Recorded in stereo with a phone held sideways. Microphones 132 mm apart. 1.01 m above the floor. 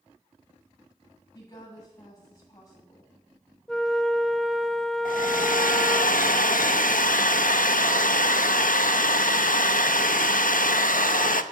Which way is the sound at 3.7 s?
Centre (ahead or behind).